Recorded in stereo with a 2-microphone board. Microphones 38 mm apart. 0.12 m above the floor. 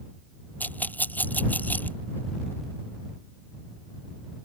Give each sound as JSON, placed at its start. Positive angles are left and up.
{"t": 0.6, "sound": "a rattle", "side_deg": 50}